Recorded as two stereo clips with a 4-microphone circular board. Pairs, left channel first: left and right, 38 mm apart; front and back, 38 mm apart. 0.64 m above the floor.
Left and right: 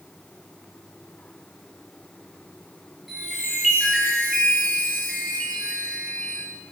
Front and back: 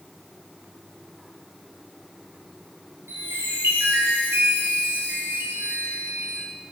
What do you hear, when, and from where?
3.1 s a chime: straight behind, 9.5 m